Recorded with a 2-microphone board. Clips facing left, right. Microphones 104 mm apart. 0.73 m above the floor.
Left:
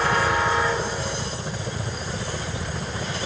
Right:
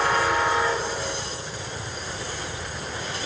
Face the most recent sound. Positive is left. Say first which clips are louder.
# even
turn(degrees=55)  # may be behind; listen again after turning